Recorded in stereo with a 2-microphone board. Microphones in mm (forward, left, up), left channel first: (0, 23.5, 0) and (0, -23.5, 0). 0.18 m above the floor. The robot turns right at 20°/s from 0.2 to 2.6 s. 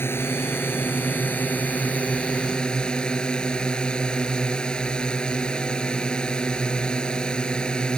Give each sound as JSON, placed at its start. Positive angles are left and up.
{"t": 0.0, "sound": "a drone", "azimuth_deg": 110}